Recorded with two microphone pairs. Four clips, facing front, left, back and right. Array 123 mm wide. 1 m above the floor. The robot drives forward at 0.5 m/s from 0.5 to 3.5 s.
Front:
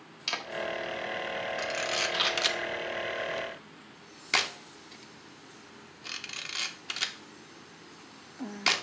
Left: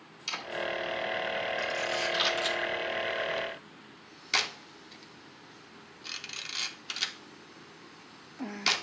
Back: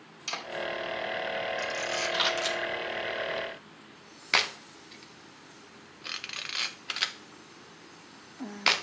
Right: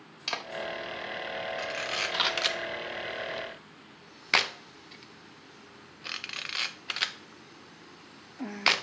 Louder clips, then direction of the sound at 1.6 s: Left 2 dB, even; 35° right.